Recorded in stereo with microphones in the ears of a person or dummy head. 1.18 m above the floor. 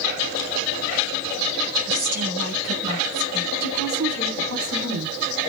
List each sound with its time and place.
1.9 s a woman speaking: 55° right (ahead or behind), 7 m
3.6 s a woman speaking: 70° right (ahead or behind), 4 m